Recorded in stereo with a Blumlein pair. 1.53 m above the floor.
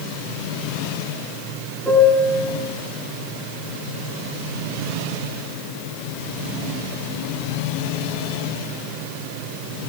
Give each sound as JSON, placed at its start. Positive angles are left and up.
{"t": 1.9, "sound": "a piano", "azimuth_deg": 0, "distance_m": 5.0}